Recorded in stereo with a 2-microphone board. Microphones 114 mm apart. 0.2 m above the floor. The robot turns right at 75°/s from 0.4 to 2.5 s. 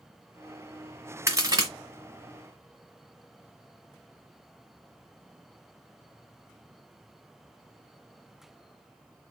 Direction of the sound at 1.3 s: 25° right (ahead or behind).